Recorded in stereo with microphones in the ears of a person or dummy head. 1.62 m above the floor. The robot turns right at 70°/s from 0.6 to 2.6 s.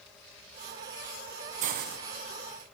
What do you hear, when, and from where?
1.6 s a hiss: 45° right (ahead or behind), 1.2 m; by 2.0 s 70° right (ahead or behind), 1.2 m